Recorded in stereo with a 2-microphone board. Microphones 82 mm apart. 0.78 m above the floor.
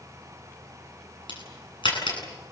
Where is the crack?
80° left, 9.5 m.